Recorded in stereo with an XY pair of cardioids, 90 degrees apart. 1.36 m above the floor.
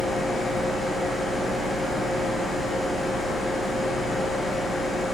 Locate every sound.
0.0 s a fan: 65° left, 1.3 m